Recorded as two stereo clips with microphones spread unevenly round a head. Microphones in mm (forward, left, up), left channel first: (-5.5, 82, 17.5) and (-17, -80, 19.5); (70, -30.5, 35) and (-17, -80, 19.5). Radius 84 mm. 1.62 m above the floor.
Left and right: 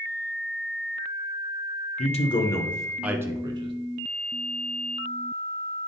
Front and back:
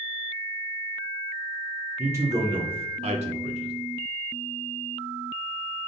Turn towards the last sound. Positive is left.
turn(degrees=-155)